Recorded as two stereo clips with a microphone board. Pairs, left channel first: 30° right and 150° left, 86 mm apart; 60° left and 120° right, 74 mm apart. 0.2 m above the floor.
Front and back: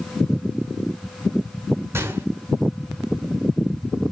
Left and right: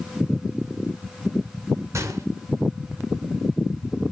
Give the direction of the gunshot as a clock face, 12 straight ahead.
5 o'clock.